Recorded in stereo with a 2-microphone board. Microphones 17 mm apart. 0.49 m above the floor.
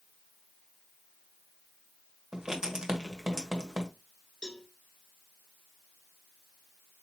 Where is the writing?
50° right (ahead or behind), 1.4 m.